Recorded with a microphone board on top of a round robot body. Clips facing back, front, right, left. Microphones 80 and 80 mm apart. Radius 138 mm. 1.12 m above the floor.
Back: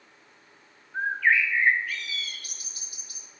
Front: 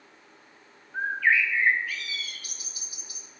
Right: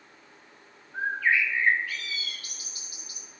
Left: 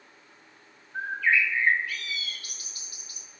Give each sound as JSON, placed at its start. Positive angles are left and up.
{"t": 0.9, "sound": "a bird", "azimuth_deg": -90, "distance_m": 2.0}